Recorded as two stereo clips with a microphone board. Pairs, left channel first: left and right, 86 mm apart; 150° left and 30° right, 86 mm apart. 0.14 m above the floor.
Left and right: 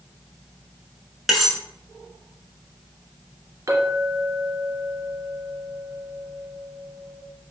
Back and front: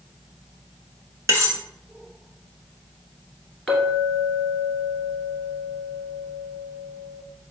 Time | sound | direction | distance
1.3 | cutlery clinking | straight ahead | 0.7 m
3.7 | a clink | 125° right | 1.3 m